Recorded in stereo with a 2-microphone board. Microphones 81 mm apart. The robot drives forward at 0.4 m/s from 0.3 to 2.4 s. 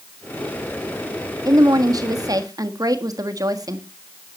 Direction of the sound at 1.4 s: 50° right (ahead or behind).